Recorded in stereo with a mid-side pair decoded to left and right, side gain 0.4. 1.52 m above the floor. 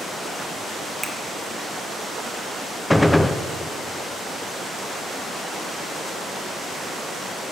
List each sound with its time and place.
1.0 s a finger snap: 5° right, 2.0 m
2.9 s a gunshot: 10° left, 0.7 m